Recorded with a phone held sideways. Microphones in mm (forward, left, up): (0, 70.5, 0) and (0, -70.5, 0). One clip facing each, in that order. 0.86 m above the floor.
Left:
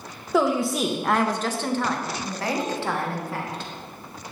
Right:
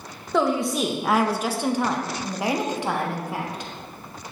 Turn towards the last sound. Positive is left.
turn(degrees=-15)  # may be behind; listen again after turning